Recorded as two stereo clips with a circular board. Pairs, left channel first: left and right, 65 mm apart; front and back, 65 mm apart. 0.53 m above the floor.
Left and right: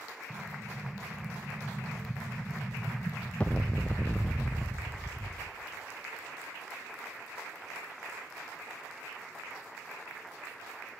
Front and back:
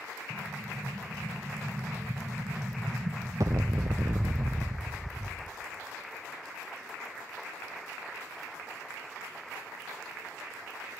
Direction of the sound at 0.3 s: 160° left.